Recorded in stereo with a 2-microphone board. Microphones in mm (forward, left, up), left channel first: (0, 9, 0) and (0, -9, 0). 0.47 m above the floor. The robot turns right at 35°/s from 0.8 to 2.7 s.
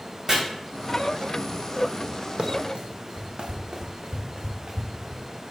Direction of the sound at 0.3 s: 25° right (ahead or behind).